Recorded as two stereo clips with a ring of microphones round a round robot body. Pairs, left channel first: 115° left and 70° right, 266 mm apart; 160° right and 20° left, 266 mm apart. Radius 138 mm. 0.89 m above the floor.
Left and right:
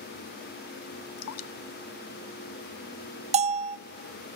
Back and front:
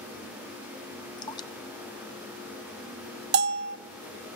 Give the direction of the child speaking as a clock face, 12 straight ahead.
I don't hear a child speaking.